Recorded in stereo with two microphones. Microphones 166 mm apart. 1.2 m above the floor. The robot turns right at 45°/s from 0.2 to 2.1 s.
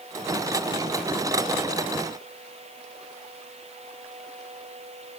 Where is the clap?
I don't hear a clap.